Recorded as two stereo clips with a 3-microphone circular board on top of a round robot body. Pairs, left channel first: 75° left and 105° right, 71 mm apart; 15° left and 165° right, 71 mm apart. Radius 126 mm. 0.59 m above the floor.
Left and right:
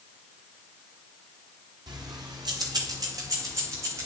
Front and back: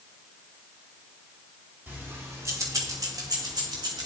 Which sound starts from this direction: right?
Keys jangling, at 1.9 s.